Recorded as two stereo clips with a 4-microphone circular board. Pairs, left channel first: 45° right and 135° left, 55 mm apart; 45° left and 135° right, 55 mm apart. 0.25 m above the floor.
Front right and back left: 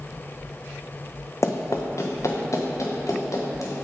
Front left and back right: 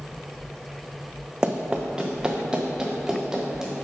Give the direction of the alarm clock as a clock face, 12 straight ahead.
I don't hear an alarm clock.